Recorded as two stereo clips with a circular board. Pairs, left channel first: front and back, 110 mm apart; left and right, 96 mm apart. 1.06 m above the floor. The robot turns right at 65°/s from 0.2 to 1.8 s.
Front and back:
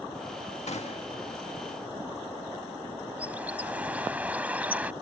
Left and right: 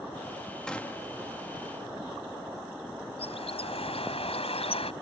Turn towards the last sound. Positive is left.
turn(degrees=100)